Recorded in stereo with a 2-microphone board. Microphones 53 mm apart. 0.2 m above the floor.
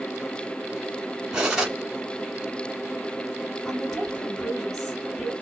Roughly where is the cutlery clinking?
Centre.